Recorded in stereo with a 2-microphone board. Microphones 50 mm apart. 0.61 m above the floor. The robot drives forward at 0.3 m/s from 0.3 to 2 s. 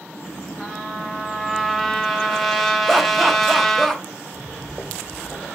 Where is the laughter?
Centre (ahead or behind), 0.7 m.